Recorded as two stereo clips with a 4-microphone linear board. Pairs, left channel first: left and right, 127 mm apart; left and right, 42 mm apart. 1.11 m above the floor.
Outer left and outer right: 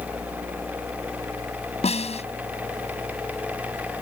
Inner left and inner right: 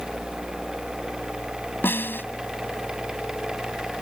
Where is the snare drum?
55° left (ahead or behind).